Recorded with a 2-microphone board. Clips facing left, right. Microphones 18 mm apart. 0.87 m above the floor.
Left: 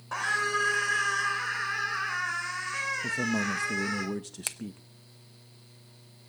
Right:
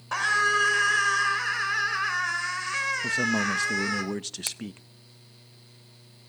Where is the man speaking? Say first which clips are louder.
Right 4 dB; 55° right (ahead or behind), 0.6 m.